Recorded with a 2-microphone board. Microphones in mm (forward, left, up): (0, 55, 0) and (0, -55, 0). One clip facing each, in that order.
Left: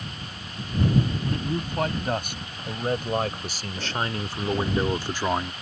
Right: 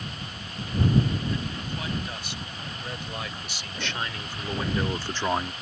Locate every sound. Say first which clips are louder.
1.2 s a man speaking: left 4 dB; 55° left (ahead or behind); by 5.5 s 5° right (ahead or behind)